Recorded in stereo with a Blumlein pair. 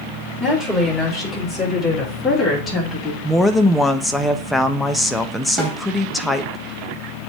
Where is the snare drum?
10° right, 3.5 m.